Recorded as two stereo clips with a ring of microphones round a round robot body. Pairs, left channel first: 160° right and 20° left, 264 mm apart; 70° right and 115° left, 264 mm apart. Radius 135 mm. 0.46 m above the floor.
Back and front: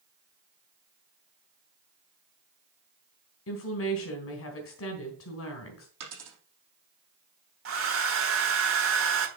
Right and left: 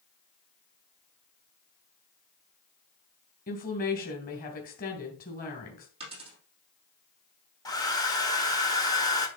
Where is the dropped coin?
40° left, 4 m.